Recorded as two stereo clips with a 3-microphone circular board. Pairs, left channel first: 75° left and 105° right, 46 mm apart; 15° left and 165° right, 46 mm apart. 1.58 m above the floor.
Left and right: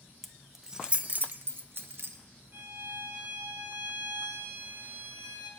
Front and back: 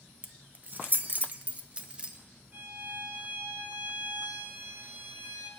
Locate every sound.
0.2 s keys jangling: 150° left, 0.9 m; by 2.2 s 100° right, 1.3 m
2.5 s a violin: 130° right, 1.6 m